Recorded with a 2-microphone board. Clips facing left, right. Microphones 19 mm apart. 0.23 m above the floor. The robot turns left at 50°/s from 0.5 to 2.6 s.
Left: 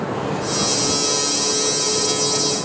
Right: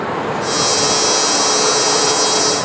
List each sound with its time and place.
0.0 s running water: 25° right; by 2.6 s 130° right